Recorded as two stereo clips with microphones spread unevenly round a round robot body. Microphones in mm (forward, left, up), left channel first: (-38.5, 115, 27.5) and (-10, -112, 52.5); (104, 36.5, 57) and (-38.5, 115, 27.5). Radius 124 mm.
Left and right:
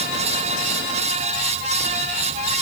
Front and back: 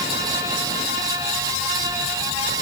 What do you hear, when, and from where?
Only background noise.